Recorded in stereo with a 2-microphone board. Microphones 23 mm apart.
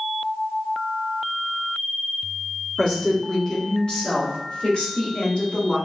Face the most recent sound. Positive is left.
turn(degrees=60)  # may be behind; listen again after turning